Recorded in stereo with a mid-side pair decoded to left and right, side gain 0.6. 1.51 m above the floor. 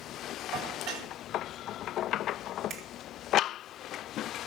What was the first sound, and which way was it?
Dishes clattering, 70° right.